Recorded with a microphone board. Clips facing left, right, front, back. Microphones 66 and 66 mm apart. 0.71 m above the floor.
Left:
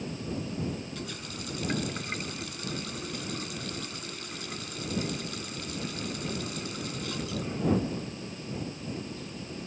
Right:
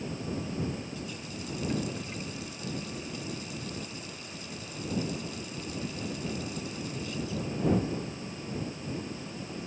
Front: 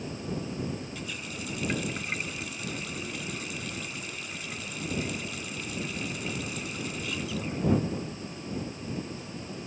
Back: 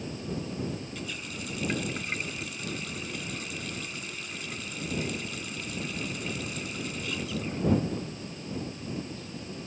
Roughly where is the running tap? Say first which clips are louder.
Even, even; left.